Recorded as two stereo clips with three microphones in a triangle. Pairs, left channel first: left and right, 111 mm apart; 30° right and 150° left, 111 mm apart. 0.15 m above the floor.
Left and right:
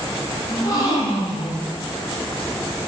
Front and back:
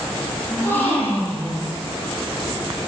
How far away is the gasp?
About 5 m.